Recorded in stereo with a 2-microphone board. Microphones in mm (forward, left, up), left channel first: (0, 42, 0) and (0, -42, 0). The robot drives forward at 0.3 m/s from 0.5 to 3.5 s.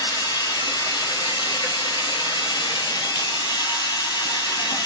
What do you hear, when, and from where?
0.0 s running water: 65° left (ahead or behind), 1.0 m; by 4.9 s 55° left (ahead or behind), 1.0 m